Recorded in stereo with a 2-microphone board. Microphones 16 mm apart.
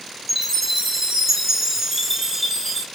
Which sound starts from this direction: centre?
A chime, at 0.3 s.